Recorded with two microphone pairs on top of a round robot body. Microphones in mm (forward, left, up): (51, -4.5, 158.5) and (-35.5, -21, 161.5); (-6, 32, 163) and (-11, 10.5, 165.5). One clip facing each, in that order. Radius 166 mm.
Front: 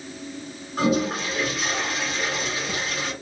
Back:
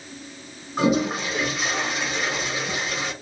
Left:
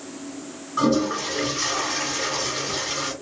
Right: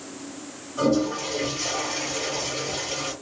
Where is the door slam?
No door slam in this recording.